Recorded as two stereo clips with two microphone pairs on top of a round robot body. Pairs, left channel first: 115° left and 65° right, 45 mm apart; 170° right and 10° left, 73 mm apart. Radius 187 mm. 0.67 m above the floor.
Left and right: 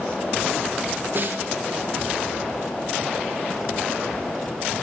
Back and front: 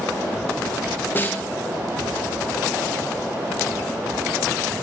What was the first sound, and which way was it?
A snare drum, 105° right.